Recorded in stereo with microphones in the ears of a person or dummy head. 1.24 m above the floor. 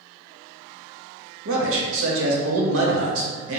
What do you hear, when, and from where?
1.4 s a man speaking: 70° right (ahead or behind), 1.1 m